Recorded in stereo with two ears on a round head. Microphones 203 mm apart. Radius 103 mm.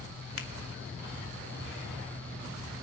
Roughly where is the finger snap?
Left.